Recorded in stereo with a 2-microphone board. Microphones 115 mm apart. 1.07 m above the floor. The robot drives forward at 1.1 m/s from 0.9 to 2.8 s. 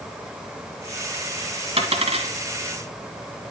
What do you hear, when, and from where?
1.8 s a dropped coin: 65° right (ahead or behind), 2 m; by 2.3 s 70° right (ahead or behind), 2.0 m